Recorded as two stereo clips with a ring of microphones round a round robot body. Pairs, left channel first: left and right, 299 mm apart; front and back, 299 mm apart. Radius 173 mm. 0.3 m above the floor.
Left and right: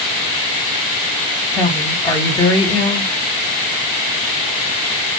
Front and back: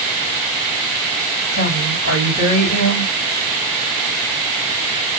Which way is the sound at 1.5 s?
10° left.